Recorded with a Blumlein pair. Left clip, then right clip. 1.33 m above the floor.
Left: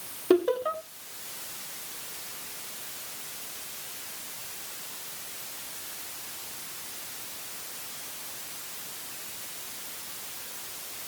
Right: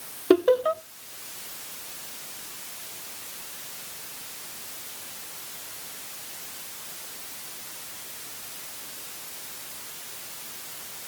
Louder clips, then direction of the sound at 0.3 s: Right 4 dB; 15° right.